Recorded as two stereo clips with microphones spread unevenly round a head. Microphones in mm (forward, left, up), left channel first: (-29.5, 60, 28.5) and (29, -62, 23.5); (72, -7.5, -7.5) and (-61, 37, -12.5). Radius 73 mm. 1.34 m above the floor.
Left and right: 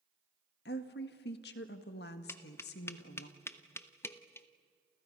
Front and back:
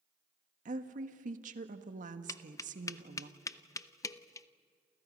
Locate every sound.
0.7 s a woman speaking: 125° left, 1.7 m
2.3 s tapping: 45° left, 0.7 m